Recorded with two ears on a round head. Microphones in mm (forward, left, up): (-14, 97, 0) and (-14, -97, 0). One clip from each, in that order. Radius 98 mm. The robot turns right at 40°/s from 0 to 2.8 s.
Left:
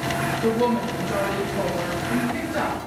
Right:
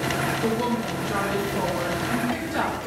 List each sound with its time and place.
0.4 s a woman speaking: 175° left, 1.2 m; by 2.8 s 90° right, 1.2 m